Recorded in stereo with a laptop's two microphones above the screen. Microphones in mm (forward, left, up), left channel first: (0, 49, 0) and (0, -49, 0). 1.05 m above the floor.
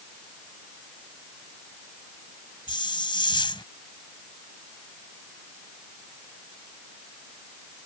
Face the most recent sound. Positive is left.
turn(degrees=55)  # may be behind; listen again after turning